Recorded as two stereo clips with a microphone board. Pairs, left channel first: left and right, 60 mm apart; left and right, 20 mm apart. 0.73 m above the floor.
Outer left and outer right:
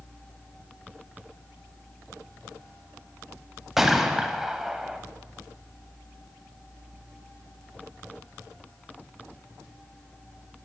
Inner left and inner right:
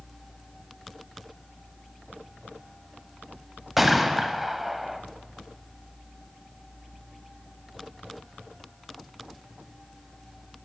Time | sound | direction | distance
3.8 | a gunshot | 5° right (ahead or behind) | 0.6 m